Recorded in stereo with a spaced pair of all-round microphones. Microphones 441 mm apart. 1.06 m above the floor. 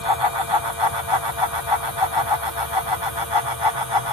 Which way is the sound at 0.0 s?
55° left (ahead or behind).